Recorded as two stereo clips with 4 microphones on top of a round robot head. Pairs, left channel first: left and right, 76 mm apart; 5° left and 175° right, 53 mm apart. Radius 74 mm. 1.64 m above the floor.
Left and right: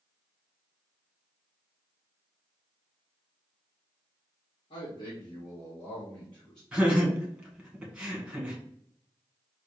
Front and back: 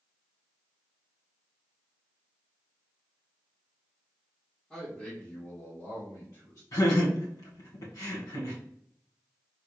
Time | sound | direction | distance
4.7 | a man speaking | 75° left | 1.2 m
6.7 | laughter | 10° right | 1.7 m